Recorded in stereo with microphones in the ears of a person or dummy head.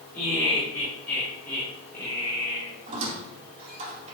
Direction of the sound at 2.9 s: 40° right (ahead or behind).